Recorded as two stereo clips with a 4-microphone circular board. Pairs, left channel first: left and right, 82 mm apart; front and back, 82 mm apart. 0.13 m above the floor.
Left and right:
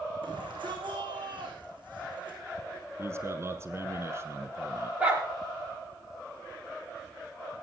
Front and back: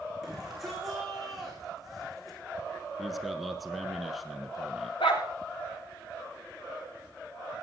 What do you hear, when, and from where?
0.2 s a shout: 95° right, 8 m; by 2.4 s 90° right, 7 m
3.0 s a man speaking: 90° right, 1.3 m
5.0 s a dog barking: 15° right, 8 m